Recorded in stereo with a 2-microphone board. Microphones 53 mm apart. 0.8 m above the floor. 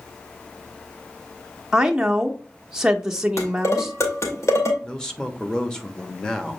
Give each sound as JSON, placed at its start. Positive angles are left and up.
{"t": 1.7, "sound": "a woman speaking", "side_deg": -10, "distance_m": 0.9}
{"t": 3.4, "sound": "dishes clattering", "side_deg": 65, "distance_m": 2.5}
{"t": 4.8, "sound": "a man speaking", "side_deg": 10, "distance_m": 1.2}